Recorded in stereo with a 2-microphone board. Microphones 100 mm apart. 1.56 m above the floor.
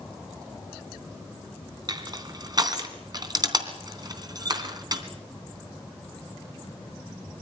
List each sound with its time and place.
1.9 s crushing: 40° right (ahead or behind), 3 m